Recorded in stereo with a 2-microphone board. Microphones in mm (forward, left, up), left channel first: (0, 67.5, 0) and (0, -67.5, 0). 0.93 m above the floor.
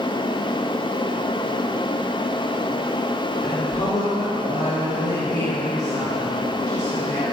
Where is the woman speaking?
35° left (ahead or behind), 3.5 m.